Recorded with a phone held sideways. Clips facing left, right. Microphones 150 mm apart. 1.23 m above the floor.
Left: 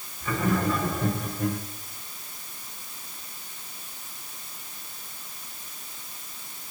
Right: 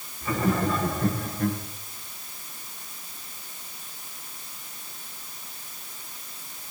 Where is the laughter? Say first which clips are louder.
Right 1 dB; 5° right (ahead or behind), 5 m; by 1.6 s 20° left (ahead or behind), 5 m.